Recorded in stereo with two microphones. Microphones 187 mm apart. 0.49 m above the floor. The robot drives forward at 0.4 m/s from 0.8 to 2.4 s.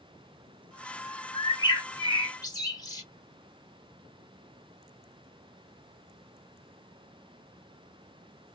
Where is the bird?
20° left (ahead or behind), 1.0 m.